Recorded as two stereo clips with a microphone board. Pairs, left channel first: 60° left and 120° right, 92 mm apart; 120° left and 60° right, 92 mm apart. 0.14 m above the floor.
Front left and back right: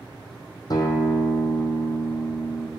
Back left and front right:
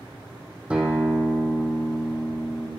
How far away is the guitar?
About 1.9 m.